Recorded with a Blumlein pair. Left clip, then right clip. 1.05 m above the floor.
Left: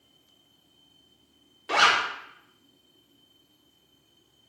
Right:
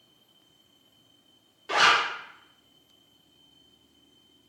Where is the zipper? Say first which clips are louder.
Even; 15° left, 0.6 m.